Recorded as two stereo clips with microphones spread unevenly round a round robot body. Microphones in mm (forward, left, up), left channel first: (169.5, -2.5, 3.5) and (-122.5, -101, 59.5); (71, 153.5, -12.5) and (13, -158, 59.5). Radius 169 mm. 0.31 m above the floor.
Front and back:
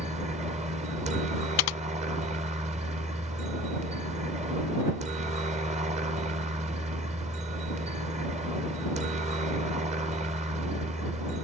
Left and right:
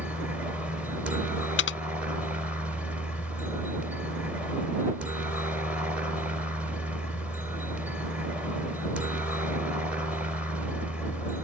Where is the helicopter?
145° left.